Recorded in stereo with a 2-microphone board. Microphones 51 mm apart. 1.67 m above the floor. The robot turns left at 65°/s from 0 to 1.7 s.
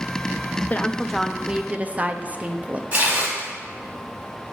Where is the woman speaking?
35° left, 0.5 m; by 2.8 s 30° right, 0.5 m.